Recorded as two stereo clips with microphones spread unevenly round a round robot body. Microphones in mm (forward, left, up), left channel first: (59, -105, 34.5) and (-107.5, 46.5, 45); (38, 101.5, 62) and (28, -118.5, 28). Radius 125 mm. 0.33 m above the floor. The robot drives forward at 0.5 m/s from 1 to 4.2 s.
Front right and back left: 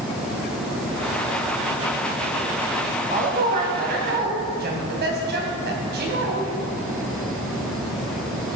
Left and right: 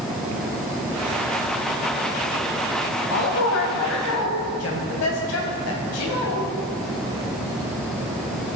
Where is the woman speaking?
80° left, 2.5 m; by 6.5 s 95° left, 2.5 m.